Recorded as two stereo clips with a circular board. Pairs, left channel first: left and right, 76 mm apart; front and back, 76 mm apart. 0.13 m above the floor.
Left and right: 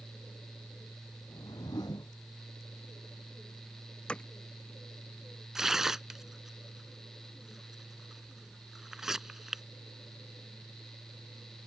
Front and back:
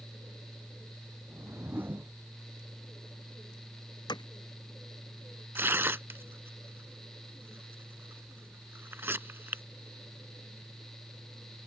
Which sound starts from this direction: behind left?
A whoosh, at 1.3 s.